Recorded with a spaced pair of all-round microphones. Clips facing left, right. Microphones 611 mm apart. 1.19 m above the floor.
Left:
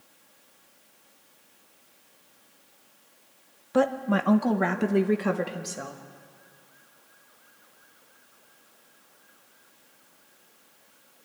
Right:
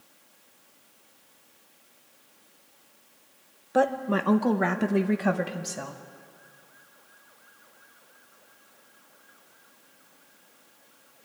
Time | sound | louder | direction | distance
3.7 | a woman speaking | left 1 dB | 30° left (ahead or behind) | 0.9 m